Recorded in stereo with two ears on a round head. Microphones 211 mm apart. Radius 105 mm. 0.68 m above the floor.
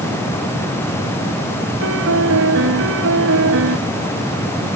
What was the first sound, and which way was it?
A piano, 60° right (ahead or behind).